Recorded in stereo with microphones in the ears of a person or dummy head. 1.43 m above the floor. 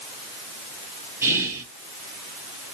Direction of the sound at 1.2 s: 15° right (ahead or behind).